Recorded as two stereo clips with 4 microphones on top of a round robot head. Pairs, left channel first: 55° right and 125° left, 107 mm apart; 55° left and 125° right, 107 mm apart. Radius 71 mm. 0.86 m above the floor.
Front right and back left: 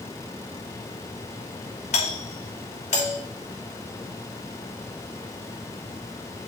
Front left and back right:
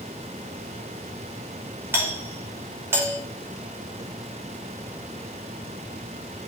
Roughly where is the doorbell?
Ahead right.